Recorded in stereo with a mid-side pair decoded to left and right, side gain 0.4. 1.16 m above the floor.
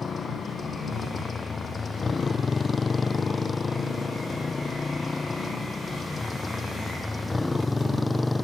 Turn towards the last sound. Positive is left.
turn(degrees=20)